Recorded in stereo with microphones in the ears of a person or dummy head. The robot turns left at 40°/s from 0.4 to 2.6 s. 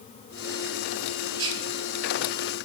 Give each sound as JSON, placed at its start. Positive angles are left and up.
{"t": 1.4, "sound": "whispering", "side_deg": -85, "distance_m": 4.0}